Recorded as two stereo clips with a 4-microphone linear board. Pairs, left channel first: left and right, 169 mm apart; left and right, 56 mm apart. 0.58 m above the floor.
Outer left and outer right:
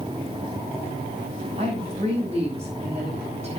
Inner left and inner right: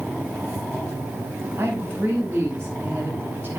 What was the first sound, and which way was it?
A woman speaking, 35° right (ahead or behind).